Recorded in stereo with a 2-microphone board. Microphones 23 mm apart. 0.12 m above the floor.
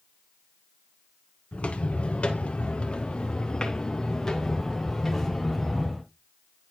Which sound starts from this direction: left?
Footsteps, at 1.5 s.